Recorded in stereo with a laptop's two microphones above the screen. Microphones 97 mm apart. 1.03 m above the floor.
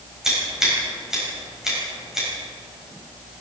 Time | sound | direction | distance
0.2 | scissors | 5° right (ahead or behind) | 4 m